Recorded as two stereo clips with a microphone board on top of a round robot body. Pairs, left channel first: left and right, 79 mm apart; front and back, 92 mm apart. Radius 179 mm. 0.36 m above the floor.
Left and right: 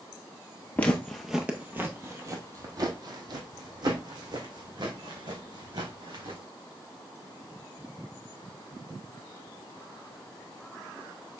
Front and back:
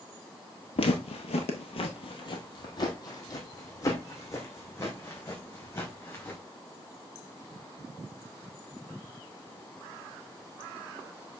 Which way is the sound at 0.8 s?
20° left.